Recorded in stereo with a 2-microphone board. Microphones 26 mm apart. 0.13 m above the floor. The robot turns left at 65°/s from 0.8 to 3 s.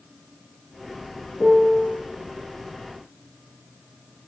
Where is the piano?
30° right, 2 m; by 2.0 s 70° right, 2 m.